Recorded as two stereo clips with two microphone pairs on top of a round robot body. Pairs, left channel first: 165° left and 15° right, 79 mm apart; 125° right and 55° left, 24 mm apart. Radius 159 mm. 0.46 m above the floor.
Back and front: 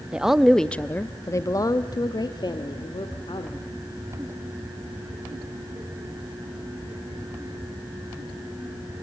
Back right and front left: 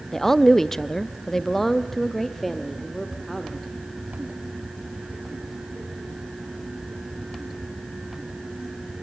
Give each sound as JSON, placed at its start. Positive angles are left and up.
{"t": 0.1, "sound": "a woman speaking", "azimuth_deg": -60, "distance_m": 0.9}